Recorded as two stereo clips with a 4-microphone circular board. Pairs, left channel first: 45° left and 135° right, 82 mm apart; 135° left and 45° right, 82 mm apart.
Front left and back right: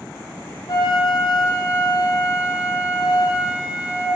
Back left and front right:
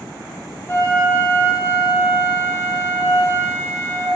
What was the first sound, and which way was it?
A flute, 75° left.